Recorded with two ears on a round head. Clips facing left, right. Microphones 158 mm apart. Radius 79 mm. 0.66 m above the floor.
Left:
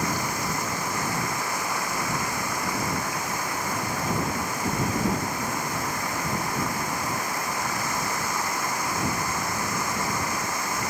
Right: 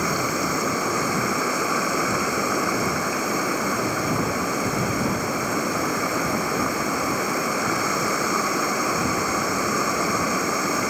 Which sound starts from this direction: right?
Running water, at 0.0 s.